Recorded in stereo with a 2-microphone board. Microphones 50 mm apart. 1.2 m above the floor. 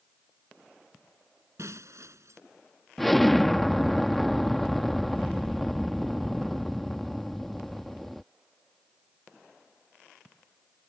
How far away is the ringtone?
I don't hear a ringtone.